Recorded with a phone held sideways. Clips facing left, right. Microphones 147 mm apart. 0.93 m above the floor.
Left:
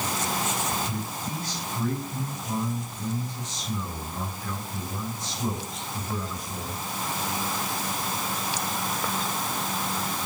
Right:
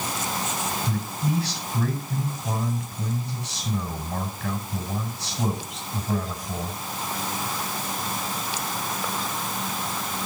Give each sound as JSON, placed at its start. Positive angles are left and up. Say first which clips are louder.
{"t": 0.9, "sound": "a man speaking", "louder": "right 5 dB", "side_deg": -80, "distance_m": 5.5}